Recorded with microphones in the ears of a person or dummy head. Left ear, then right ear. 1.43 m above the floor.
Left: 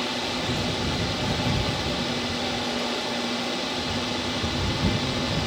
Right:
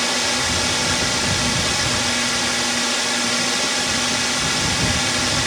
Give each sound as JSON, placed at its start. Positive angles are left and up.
{"t": 0.0, "sound": "a drone", "side_deg": -55}